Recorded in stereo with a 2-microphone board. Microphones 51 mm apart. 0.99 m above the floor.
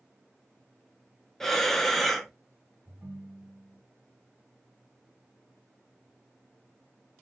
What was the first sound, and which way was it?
Breathing, 5° left (ahead or behind).